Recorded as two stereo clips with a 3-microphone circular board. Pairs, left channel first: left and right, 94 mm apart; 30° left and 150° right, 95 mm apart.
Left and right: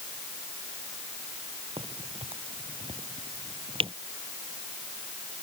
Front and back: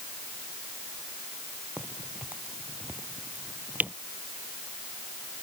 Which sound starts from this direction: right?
A crack, at 1.8 s.